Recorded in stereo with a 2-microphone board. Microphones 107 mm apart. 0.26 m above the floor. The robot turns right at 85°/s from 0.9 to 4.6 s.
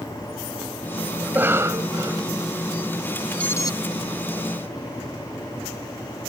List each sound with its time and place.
1.2 s a cough: 155° right; by 2.3 s 60° right
3.4 s an alarm: 10° left (ahead or behind); by 3.7 s 40° left (ahead or behind)